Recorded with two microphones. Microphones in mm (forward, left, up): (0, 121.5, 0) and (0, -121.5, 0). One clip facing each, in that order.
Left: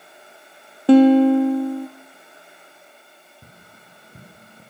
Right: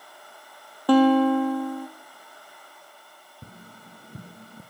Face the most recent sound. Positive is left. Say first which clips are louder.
# right 7 dB
turn(degrees=-35)  # may be behind; listen again after turning